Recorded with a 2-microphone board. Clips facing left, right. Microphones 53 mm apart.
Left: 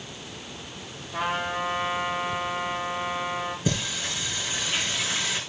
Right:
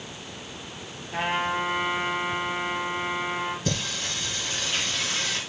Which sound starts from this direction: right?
A trumpet, at 1.1 s.